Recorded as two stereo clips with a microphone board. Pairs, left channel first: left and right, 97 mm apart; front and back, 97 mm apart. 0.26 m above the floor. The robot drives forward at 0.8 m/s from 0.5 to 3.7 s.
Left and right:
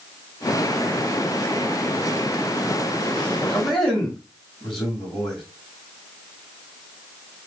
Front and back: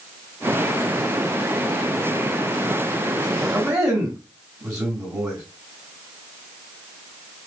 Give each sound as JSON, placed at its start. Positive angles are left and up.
{"t": 3.5, "sound": "a man speaking", "azimuth_deg": 175, "distance_m": 1.5}